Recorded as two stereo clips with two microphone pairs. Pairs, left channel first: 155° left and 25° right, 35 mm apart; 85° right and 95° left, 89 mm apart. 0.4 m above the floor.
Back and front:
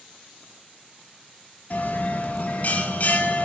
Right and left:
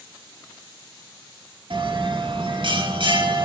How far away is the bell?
About 1.6 m.